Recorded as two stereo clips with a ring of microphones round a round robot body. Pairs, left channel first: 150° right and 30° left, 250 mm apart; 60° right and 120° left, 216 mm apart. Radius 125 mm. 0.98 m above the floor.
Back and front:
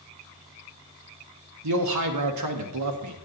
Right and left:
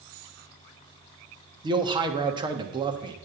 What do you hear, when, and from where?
1.6 s a man speaking: 50° left, 1.2 m